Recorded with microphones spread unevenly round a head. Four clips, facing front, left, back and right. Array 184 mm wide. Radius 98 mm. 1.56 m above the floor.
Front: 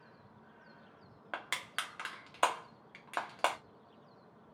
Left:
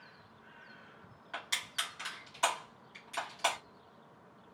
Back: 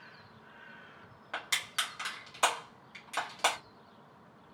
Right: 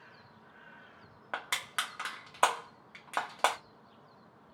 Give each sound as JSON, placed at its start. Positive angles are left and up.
{"t": 1.3, "sound": "crushing", "azimuth_deg": -50, "distance_m": 0.6}